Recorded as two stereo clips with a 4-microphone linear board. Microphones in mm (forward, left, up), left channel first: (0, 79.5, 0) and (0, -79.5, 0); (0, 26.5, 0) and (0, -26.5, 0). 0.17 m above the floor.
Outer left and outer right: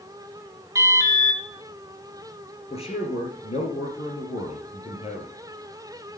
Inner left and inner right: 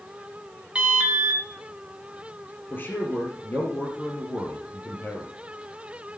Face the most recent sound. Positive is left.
turn(degrees=40)  # may be behind; listen again after turning